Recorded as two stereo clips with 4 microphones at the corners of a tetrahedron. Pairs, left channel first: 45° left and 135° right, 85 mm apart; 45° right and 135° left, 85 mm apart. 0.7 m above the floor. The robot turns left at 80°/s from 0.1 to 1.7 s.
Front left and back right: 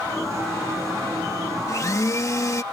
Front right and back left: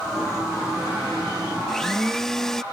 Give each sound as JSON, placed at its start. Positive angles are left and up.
{"t": 1.7, "sound": "a blender", "azimuth_deg": 35}